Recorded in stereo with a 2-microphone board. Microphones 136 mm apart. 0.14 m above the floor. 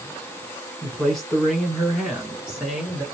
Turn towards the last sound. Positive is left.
turn(degrees=-5)  # may be behind; listen again after turning